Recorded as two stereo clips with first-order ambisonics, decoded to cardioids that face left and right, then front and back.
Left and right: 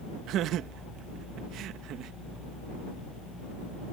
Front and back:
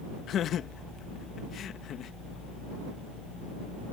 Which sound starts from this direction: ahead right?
Laughter, at 0.3 s.